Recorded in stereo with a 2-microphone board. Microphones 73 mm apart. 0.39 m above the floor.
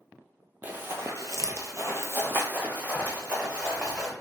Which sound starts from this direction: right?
Running footsteps, at 0.6 s.